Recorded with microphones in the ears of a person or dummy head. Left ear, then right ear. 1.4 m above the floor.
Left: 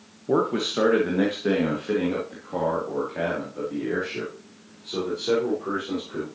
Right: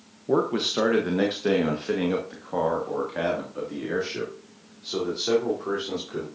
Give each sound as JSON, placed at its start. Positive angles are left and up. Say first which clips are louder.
{"t": 0.3, "sound": "a man speaking", "louder": "even", "side_deg": -5, "distance_m": 1.0}